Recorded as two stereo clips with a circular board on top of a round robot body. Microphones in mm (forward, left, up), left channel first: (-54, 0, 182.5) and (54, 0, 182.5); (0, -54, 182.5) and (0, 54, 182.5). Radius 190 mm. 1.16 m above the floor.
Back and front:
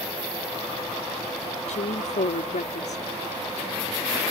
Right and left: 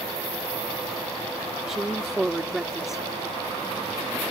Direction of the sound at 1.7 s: 175° left.